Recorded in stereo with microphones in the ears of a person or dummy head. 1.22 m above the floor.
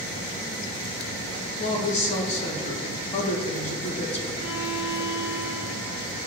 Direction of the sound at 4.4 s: 80° left.